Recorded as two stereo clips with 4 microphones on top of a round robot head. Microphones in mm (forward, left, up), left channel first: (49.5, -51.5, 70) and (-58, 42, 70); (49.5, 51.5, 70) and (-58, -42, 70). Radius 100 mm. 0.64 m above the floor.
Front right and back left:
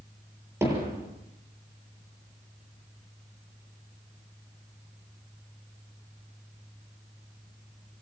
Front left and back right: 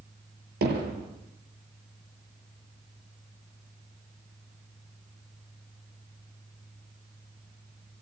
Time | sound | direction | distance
0.6 | hammering | 145° right | 7.5 m